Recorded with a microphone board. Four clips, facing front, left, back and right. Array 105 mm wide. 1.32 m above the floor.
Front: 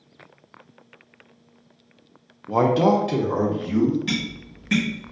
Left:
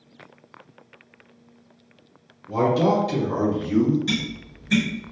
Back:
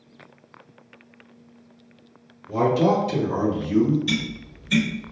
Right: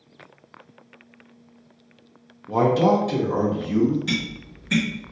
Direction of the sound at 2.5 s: 20° right.